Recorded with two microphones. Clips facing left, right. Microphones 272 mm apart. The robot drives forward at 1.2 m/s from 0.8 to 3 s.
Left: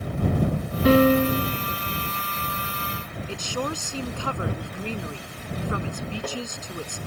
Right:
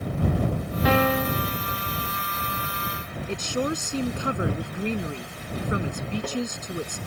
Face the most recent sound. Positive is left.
turn(degrees=-20)  # may be behind; listen again after turning